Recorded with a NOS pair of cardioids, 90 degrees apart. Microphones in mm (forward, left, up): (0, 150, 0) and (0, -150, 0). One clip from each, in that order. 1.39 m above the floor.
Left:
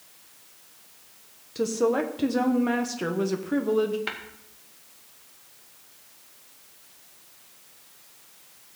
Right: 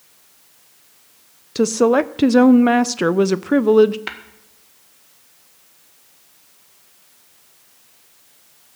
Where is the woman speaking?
50° right, 0.6 m.